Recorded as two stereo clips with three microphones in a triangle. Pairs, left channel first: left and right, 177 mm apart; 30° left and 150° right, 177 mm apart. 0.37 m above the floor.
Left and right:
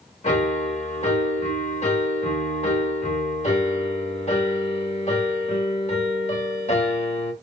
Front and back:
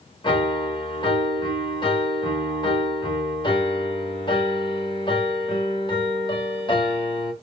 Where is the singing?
I don't hear singing.